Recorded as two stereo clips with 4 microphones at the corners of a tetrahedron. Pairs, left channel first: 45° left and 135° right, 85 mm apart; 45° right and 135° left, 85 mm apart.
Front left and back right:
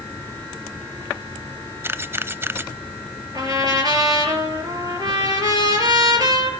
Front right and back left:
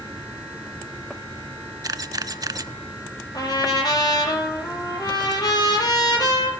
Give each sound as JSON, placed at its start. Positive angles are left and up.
{"t": 1.8, "sound": "a camera shutter", "azimuth_deg": 165, "distance_m": 0.5}
{"t": 3.3, "sound": "a trumpet", "azimuth_deg": -90, "distance_m": 5.5}